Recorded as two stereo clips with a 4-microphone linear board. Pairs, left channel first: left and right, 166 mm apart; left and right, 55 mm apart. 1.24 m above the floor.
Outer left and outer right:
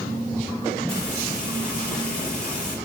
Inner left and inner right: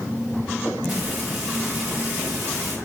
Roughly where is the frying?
Centre.